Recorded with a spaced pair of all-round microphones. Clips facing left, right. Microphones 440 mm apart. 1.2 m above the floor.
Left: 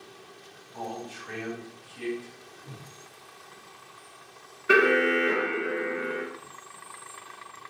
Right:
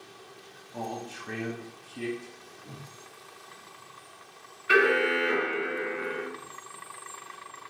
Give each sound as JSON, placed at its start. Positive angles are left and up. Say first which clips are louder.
{"t": 0.7, "sound": "a man speaking", "louder": "right 1 dB", "side_deg": -60, "distance_m": 0.6}
{"t": 2.6, "sound": "a whoosh", "louder": "right 1 dB", "side_deg": 0, "distance_m": 1.0}
{"t": 4.7, "sound": "an alarm", "louder": "left 2 dB", "side_deg": 60, "distance_m": 0.6}